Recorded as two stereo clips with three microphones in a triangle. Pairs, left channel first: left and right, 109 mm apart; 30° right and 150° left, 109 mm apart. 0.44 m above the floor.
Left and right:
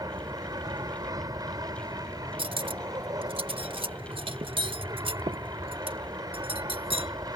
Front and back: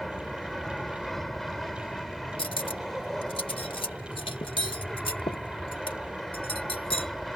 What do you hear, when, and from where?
0.0 s an aircraft: 115° right
2.4 s cutlery clinking: 60° right